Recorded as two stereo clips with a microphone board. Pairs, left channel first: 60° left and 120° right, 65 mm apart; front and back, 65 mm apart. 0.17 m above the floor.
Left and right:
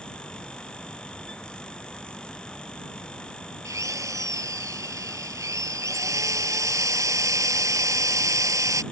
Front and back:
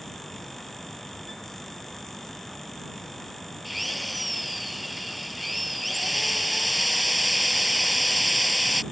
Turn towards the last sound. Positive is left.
turn(degrees=-90)